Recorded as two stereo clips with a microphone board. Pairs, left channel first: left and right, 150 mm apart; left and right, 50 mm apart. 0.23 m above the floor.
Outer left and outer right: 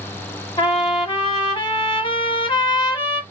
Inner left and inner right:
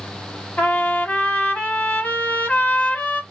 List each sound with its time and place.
0.6 s a trumpet: 35° left (ahead or behind), 1.2 m